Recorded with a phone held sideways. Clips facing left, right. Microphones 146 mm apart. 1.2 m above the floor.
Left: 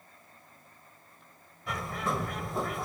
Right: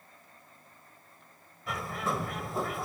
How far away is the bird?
About 1.3 m.